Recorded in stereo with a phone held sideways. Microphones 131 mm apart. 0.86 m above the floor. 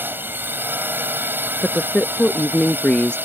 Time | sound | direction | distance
0.0 | a drone | 15° right (ahead or behind) | ?
1.6 | a woman speaking | 10° left (ahead or behind) | ?